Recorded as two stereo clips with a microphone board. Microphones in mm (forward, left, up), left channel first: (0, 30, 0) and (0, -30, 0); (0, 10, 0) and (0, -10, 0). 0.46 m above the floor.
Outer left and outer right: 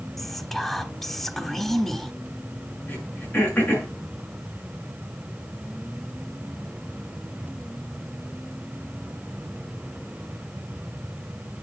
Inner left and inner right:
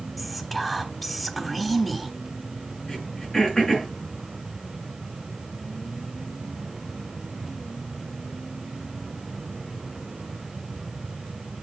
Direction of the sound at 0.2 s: 10° left (ahead or behind).